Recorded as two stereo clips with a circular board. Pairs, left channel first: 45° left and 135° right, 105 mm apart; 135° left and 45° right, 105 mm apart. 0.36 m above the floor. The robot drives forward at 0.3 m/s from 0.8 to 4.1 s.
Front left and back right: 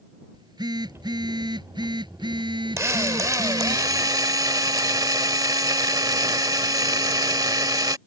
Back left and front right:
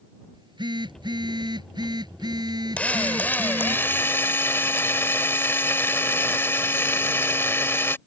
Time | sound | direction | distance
0.3 | a phone buzzing | 90° right | ?
2.8 | a drill | 160° right | ?